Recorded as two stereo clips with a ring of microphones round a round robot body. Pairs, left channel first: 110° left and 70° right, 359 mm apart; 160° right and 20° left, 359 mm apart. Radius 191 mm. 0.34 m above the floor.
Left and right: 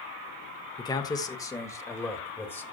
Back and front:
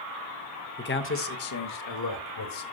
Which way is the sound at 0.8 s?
Straight behind.